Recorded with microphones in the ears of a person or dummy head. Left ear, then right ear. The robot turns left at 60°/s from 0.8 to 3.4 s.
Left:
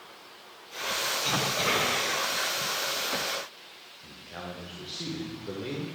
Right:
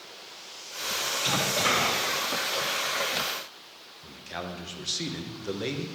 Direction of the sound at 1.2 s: 30° right.